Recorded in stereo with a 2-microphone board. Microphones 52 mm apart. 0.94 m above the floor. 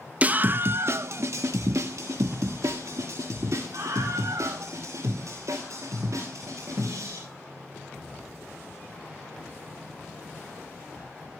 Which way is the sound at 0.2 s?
25° right (ahead or behind).